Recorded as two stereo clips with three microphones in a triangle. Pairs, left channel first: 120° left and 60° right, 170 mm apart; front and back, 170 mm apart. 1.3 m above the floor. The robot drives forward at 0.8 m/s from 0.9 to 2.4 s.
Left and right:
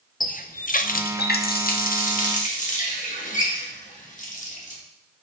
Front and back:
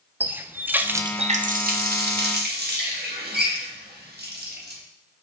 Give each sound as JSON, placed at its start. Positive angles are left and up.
{"t": 0.2, "sound": "a running tap", "azimuth_deg": 100, "distance_m": 0.5}